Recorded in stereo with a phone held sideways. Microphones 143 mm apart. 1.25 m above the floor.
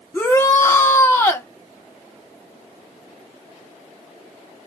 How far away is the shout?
About 1.1 m.